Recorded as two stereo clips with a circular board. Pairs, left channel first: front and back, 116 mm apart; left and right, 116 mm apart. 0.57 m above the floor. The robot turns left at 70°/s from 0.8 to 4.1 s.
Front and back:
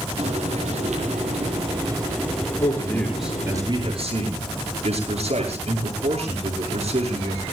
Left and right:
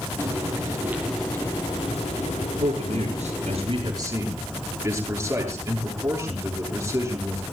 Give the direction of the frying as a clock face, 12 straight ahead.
5 o'clock.